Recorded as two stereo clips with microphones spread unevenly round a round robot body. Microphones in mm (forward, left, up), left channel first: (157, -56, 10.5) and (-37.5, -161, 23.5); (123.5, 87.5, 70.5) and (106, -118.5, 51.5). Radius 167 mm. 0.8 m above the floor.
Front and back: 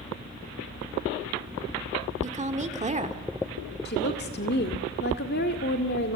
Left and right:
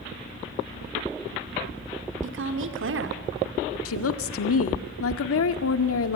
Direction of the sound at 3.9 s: 85° left.